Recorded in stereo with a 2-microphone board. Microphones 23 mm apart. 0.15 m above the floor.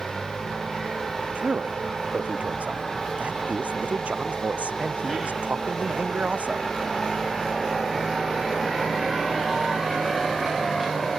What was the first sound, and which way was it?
A man speaking, 75° right (ahead or behind).